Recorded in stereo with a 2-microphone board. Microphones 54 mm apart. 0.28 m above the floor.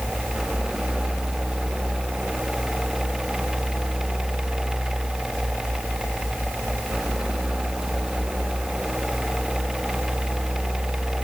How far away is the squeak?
I don't hear a squeak.